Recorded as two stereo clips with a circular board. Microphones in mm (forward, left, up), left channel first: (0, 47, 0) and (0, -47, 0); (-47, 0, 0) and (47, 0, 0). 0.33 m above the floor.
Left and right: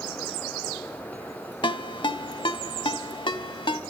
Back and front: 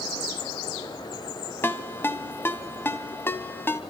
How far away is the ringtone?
About 0.9 m.